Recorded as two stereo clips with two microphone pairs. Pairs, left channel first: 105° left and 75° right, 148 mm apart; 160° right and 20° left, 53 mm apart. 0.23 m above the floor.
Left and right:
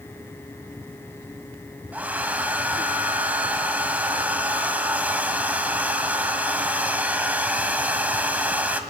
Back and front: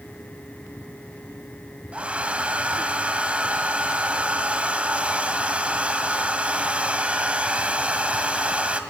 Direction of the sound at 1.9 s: 10° right.